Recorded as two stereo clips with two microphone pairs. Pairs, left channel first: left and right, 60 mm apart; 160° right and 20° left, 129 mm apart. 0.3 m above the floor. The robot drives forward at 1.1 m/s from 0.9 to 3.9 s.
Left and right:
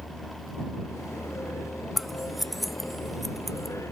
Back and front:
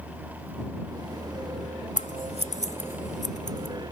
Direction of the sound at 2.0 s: 175° left.